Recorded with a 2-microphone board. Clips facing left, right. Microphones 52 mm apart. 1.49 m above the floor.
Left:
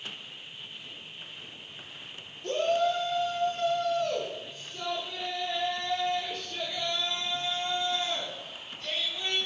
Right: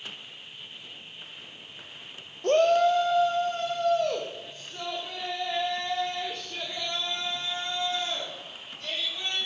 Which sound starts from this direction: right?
A shout, at 2.4 s.